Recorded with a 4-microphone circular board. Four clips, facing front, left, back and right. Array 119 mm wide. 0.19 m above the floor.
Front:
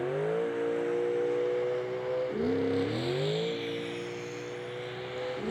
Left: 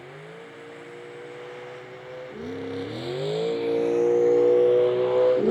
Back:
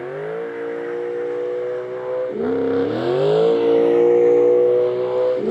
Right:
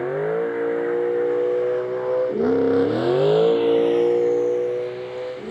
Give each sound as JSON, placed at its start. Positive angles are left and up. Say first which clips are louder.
{"t": 0.0, "sound": "a vehicle", "louder": "right 20 dB, back 4 dB", "azimuth_deg": -105}